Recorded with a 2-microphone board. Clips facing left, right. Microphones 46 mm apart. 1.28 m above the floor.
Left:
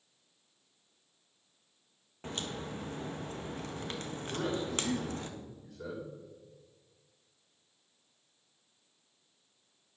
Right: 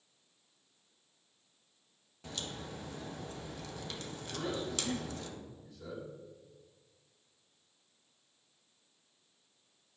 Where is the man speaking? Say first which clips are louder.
Left 3 dB; 55° left (ahead or behind), 5 m.